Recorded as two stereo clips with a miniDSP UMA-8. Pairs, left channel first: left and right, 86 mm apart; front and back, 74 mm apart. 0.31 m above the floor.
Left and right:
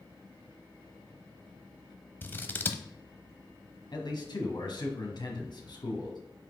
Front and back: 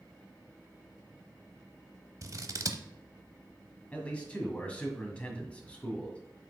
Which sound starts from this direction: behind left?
Scissors, at 2.2 s.